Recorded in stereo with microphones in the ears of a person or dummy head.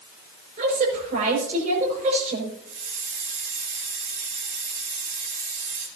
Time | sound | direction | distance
0.6 | a woman speaking | 50° right (ahead or behind) | 5.5 m
2.7 | a hiss | 80° right | 4 m